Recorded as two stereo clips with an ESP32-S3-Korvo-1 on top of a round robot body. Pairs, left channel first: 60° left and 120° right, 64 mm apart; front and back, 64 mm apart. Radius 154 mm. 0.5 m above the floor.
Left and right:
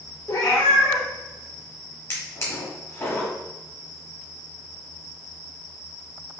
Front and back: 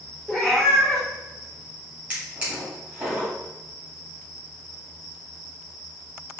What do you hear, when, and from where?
0.3 s a cat meowing: 85° left, 0.6 m
2.1 s a drawer: 105° left, 1.2 m